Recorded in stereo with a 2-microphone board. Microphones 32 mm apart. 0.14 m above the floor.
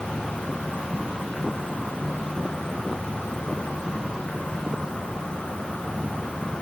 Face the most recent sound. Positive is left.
turn(degrees=25)  # may be behind; listen again after turning